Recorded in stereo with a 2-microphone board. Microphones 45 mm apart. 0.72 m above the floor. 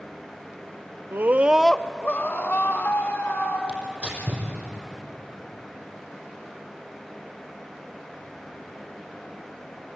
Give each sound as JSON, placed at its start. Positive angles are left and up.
{"t": 1.1, "sound": "a scream", "side_deg": -55, "distance_m": 0.7}
{"t": 3.7, "sound": "tearing paper", "side_deg": -30, "distance_m": 5.5}